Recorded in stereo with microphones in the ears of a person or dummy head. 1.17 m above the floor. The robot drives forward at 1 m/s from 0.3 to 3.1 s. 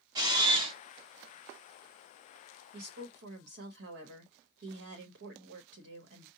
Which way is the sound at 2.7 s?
50° right (ahead or behind).